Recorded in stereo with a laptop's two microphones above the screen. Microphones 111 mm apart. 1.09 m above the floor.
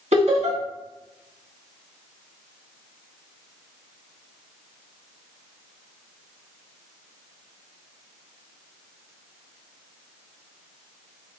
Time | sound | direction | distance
0.1 | laughter | 75° right (ahead or behind) | 2.0 m